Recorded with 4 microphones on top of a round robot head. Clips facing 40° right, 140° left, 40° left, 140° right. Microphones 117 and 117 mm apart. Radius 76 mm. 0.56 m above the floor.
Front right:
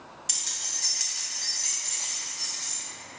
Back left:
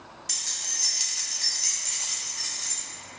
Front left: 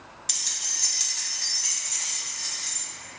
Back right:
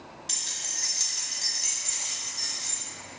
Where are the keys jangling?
20° left, 0.8 m; by 2.8 s 175° left, 1.9 m.